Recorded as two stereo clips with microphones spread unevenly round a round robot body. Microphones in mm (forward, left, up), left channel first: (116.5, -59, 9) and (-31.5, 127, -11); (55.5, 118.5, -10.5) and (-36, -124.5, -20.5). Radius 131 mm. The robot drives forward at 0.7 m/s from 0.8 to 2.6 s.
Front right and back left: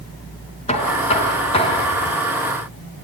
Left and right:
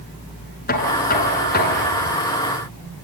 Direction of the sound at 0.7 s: 15° left.